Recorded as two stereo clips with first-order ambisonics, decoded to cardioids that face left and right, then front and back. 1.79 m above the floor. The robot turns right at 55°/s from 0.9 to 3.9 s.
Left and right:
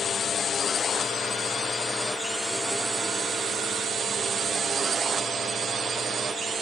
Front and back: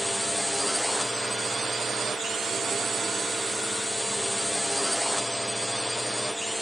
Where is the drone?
95° left; by 6.6 s 100° right.